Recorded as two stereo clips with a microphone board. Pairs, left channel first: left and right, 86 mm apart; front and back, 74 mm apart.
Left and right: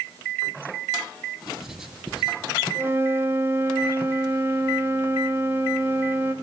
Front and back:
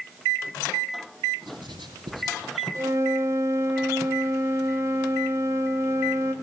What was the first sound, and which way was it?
Writing, 175° right.